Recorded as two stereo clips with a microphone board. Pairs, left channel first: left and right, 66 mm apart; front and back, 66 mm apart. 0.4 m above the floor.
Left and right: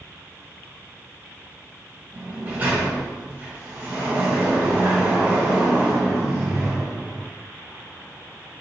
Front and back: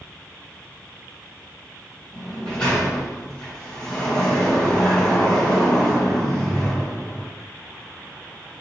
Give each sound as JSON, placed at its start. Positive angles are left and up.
{"t": 2.1, "sound": "a sliding door", "azimuth_deg": -60, "distance_m": 1.4}